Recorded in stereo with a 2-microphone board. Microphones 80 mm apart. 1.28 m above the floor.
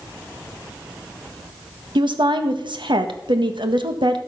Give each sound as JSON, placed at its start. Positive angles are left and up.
{"t": 1.9, "sound": "a woman speaking", "side_deg": -85, "distance_m": 1.5}